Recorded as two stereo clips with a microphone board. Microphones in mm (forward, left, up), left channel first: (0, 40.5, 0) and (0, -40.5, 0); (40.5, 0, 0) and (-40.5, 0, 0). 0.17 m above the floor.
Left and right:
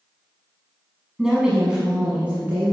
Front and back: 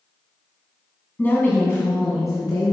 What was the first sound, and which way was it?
A woman speaking, 20° right.